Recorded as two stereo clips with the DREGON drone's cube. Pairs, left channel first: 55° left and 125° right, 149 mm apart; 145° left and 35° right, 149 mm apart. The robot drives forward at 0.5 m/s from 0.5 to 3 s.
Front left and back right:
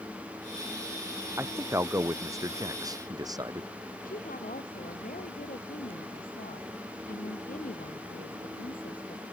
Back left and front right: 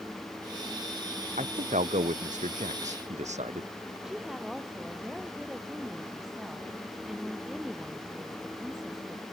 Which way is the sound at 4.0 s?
55° left.